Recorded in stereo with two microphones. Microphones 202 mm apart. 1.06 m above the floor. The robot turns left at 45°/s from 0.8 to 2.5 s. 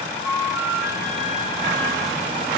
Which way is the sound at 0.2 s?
10° right.